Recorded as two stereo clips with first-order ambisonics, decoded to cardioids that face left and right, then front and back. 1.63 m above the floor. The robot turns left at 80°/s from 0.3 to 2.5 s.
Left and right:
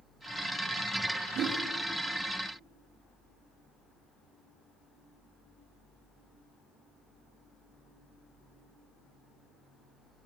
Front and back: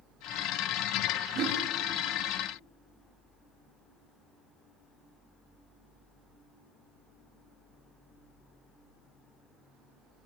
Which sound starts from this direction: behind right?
A whoosh, at 1.4 s.